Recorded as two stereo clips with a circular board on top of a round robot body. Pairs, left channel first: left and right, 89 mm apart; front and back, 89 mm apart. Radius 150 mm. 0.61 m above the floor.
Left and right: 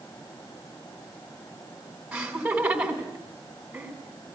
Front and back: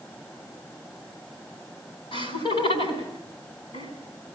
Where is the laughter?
15° right, 7 m.